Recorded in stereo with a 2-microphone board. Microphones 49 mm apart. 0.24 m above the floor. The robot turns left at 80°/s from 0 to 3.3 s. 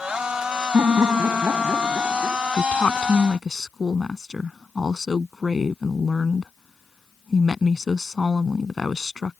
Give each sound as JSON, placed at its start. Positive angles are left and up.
{"t": 0.7, "sound": "laughter", "azimuth_deg": -70}
{"t": 2.6, "sound": "a woman speaking", "azimuth_deg": 55}